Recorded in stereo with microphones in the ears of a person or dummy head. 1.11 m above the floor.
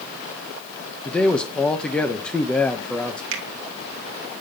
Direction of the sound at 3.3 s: 60° right (ahead or behind).